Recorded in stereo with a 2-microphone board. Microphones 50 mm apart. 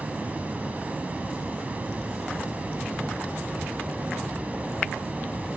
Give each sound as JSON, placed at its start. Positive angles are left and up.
{"t": 0.0, "sound": "running water", "side_deg": -30, "distance_m": 3.0}